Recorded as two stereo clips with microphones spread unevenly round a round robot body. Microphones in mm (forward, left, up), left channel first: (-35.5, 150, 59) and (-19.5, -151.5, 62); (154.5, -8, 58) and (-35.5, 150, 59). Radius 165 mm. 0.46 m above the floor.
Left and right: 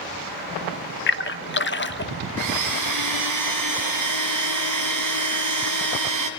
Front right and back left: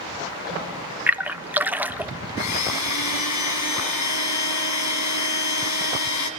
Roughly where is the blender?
Ahead right.